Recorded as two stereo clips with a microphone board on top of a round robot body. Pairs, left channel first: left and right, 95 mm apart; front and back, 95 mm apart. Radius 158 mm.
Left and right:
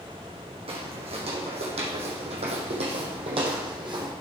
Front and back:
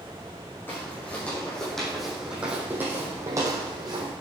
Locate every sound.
0.7 s footsteps: 70° right, 3.5 m; by 4.1 s 135° right, 2.5 m